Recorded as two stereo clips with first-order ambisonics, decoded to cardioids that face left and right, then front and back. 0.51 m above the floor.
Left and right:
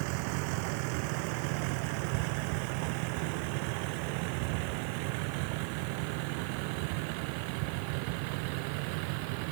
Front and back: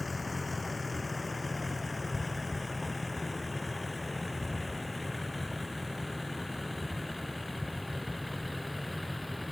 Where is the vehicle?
80° right; by 9.5 s 85° right.